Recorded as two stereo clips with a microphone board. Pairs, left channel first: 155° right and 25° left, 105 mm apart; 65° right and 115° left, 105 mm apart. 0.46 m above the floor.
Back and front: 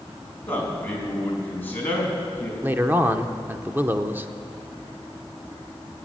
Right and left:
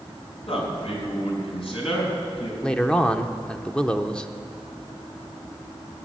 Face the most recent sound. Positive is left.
turn(degrees=0)